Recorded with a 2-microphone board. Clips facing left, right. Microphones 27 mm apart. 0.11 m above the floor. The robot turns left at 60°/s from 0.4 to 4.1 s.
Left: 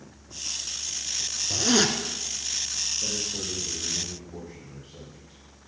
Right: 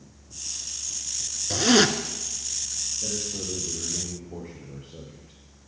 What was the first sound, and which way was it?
A zipper, 25° right (ahead or behind).